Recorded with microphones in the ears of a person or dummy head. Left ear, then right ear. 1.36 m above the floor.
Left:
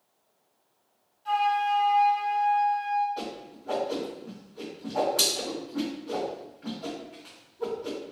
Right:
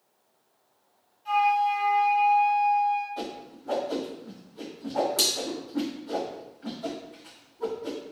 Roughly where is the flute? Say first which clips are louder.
Right 2 dB; centre.